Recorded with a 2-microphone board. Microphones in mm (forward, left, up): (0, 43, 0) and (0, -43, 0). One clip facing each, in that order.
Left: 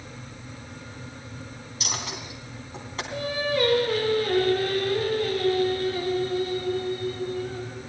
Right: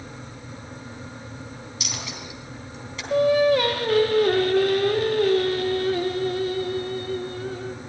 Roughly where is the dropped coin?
Left.